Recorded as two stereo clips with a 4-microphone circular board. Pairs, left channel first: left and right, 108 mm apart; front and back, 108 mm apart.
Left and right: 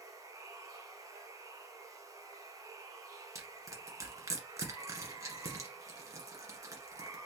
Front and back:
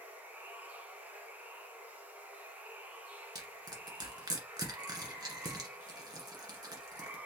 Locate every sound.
0.0 s running water: 120° right, 1.2 m
3.4 s crushing: 140° right, 1.5 m